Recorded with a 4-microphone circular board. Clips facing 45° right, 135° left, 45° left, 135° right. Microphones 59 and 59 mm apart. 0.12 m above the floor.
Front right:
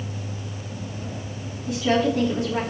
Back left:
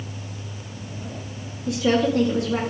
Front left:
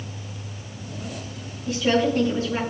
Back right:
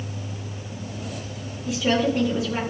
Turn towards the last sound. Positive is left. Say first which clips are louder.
# back left 1 dB, front left 1 dB
turn(degrees=145)